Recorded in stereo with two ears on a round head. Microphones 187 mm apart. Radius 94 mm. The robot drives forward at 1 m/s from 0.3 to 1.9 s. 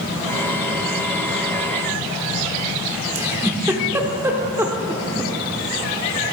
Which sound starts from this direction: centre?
A giggle, at 3.1 s.